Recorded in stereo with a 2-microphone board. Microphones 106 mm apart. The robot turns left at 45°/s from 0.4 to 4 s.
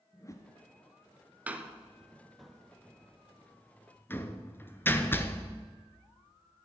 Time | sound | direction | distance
0.1 | a whoosh | 30° left (ahead or behind) | 1.0 m
1.5 | a door slam | 15° right (ahead or behind) | 0.8 m